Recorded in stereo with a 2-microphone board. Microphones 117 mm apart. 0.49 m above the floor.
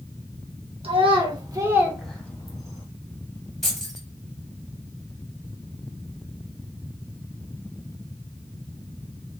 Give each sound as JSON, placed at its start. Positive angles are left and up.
{"t": 0.8, "sound": "a child speaking", "side_deg": -55, "distance_m": 1.2}
{"t": 3.6, "sound": "keys jangling", "side_deg": 0, "distance_m": 1.9}